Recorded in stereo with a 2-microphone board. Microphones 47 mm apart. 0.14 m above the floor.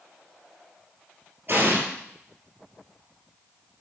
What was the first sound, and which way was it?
An explosion, 40° right (ahead or behind).